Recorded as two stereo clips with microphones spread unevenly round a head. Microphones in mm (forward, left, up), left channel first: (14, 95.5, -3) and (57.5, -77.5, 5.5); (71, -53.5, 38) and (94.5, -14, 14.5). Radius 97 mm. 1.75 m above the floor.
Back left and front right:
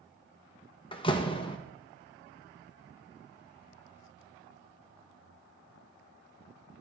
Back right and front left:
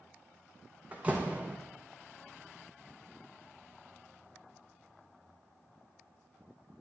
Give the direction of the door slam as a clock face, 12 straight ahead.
7 o'clock.